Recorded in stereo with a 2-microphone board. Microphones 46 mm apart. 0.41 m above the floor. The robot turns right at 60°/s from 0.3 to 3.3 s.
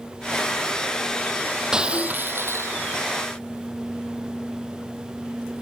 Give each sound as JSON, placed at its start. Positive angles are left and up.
{"t": 1.7, "sound": "breaking glass", "azimuth_deg": -170}